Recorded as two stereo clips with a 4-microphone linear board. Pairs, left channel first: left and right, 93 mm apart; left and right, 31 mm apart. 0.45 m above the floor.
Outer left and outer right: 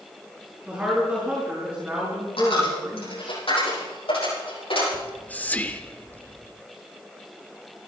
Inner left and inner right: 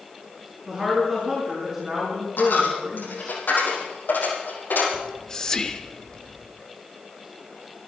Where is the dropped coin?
85° left, 7.5 m.